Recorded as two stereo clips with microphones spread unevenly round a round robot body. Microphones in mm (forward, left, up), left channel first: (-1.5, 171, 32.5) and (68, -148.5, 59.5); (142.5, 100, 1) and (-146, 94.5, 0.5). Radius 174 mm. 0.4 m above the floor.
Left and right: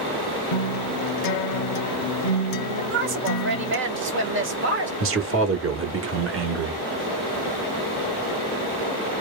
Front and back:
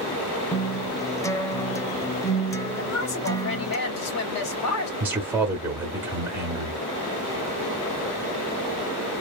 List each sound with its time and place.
0.5 s a guitar: 80° left, 0.6 m
2.8 s a woman speaking: 25° right, 1.4 m
5.0 s a man speaking: 100° right, 1.0 m